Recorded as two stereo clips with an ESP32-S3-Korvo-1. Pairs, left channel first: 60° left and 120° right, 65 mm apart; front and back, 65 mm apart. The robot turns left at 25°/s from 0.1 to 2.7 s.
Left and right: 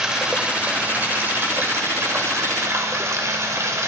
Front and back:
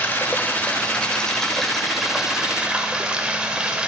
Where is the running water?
45° right, 0.8 m; by 3.9 s 110° right, 0.8 m.